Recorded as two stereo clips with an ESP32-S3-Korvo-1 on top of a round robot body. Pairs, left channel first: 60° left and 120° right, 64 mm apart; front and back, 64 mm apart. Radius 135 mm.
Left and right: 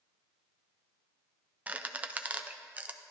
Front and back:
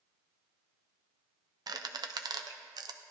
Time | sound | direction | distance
1.7 | a squeak | 170° left | 0.5 m